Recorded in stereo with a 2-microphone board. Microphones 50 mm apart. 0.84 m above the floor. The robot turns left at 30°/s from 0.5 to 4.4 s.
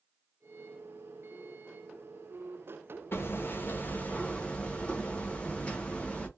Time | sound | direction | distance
3.1 | hammering | 65° left | 0.7 m